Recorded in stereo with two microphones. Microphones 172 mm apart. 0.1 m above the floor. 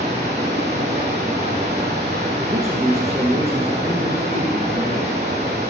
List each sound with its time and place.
0.0 s running water: 35° right (ahead or behind), 2.5 m
2.5 s a man speaking: 20° right (ahead or behind), 1.5 m